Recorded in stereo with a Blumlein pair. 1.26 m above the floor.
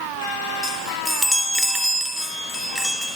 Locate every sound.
0.6 s a chime: 5° right, 3.5 m